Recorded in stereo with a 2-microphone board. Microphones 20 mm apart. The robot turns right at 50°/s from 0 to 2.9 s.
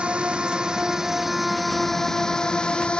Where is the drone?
75° right (ahead or behind); by 3.0 s 55° left (ahead or behind).